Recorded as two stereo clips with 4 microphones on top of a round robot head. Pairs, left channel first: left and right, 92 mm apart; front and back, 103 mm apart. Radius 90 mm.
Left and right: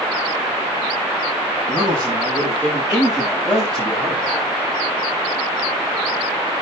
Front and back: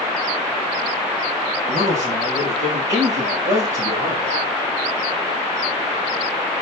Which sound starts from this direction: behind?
A man speaking, at 1.7 s.